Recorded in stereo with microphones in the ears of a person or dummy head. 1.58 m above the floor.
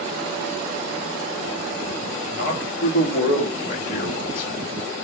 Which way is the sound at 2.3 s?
50° left (ahead or behind).